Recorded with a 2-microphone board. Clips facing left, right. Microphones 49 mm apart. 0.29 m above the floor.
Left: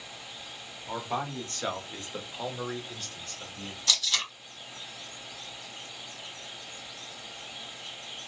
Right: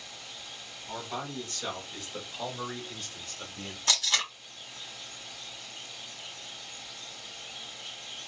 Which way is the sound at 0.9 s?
45° left (ahead or behind).